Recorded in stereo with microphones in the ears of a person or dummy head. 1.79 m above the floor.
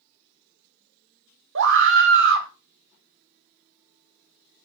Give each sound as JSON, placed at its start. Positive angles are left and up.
{"t": 1.6, "sound": "a scream", "side_deg": -65, "distance_m": 0.8}